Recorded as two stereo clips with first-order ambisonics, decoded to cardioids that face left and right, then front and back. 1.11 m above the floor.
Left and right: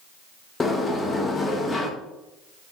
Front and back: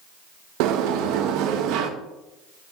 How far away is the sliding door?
About 1.1 m.